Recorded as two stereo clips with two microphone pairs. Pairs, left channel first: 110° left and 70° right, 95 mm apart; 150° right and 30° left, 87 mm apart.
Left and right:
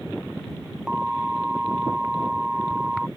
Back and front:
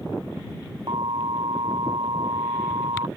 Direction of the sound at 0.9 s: 15° left.